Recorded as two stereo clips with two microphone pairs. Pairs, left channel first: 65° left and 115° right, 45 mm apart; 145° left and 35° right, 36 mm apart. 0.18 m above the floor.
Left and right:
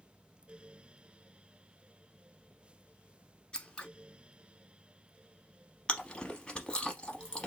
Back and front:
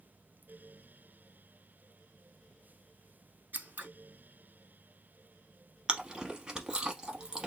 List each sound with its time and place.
3.5 s scissors: 10° right, 0.6 m
5.9 s chewing: 10° left, 0.8 m